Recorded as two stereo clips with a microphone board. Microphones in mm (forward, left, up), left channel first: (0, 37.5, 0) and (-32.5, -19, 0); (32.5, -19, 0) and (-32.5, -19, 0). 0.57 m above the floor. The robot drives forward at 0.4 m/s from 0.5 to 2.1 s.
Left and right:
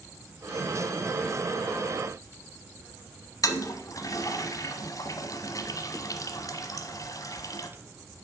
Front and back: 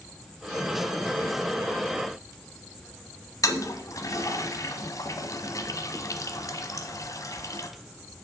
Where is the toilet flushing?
30° left, 1.0 m.